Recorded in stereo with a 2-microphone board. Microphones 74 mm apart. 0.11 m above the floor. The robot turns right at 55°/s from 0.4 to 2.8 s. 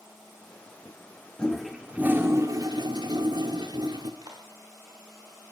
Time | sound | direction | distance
1.4 | a toilet flushing | 165° left | 2.5 m
4.2 | a clap | 60° right (ahead or behind) | 7 m